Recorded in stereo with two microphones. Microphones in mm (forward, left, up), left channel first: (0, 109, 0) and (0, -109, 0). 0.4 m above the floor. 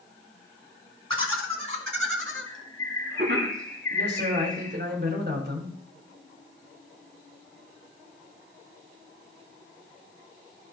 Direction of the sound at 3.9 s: 55° right (ahead or behind).